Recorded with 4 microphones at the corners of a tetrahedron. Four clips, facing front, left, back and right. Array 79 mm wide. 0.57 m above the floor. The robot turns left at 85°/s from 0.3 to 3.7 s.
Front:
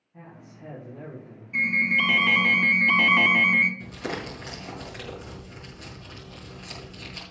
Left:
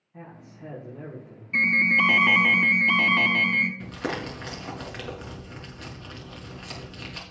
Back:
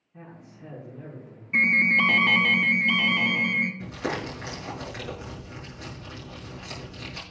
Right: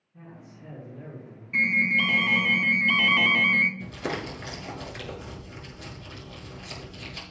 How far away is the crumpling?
About 5 m.